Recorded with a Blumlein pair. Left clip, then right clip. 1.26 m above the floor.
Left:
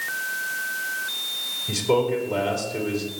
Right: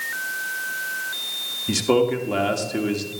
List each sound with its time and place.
1.7 s a man speaking: 65° right, 2.5 m